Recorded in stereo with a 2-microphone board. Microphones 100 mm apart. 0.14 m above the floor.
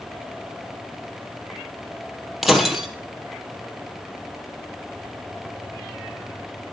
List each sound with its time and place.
2.4 s breaking glass: 5° right (ahead or behind), 2.5 m